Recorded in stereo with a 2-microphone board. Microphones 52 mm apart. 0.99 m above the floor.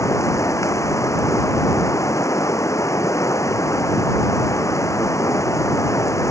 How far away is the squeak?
No squeak in this recording.